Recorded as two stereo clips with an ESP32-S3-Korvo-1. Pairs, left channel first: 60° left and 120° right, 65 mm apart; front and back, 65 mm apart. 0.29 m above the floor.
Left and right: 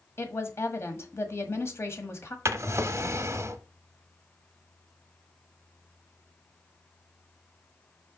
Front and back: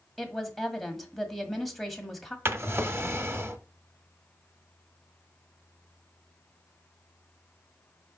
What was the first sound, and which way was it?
A woman speaking, 85° left.